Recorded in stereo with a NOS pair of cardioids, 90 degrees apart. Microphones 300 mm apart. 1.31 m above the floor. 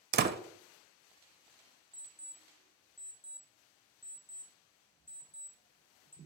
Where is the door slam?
35° right, 0.7 m.